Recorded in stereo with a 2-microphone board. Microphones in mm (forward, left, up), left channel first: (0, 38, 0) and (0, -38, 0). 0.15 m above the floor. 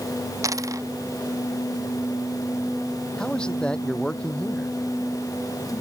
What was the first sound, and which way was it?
A dropped coin, 45° right (ahead or behind).